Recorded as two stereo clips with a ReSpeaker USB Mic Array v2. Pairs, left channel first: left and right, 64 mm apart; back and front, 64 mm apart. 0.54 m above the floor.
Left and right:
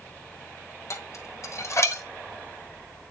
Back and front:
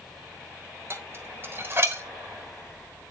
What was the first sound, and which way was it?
Dishes clattering, 50° left.